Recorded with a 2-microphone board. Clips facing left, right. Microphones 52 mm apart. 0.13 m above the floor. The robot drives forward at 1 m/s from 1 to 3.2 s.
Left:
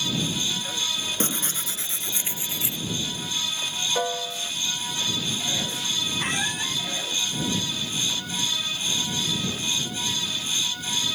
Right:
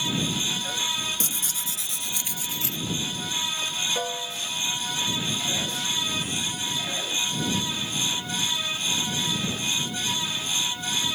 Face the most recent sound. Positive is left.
turn(degrees=60)  # may be behind; listen again after turning